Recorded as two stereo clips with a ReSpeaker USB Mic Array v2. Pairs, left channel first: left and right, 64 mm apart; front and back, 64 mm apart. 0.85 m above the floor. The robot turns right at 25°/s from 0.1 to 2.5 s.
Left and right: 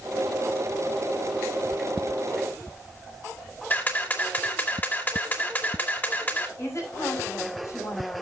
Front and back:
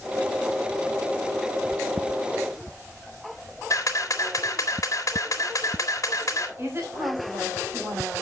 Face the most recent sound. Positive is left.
turn(degrees=130)